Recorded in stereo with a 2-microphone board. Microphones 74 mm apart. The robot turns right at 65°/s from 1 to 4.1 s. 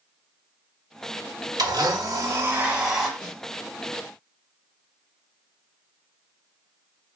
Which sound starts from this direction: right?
A blender, at 1.6 s.